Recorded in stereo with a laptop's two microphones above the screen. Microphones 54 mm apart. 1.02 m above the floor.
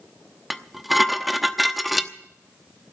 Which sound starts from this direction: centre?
Dishes clattering, at 0.5 s.